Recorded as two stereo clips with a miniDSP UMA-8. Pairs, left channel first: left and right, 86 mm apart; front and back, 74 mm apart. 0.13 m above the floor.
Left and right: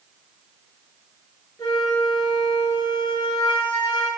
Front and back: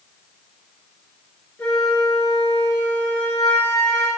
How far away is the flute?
About 1.5 m.